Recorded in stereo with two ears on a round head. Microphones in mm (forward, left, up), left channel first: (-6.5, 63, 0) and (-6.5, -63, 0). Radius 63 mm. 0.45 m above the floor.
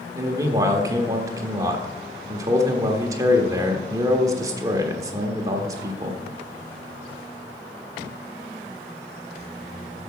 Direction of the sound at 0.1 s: 25° right (ahead or behind).